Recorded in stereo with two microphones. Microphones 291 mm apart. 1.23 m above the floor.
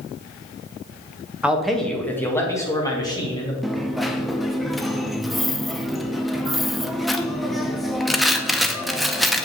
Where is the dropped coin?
Centre (ahead or behind), 0.6 m.